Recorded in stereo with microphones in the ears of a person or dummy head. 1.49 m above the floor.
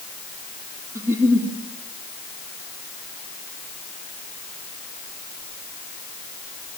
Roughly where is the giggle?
Centre.